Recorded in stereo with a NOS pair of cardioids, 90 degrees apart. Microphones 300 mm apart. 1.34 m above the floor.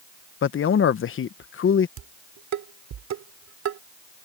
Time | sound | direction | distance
0.4 | a man speaking | 45° left | ?
2.0 | dishes clattering | 60° right | ?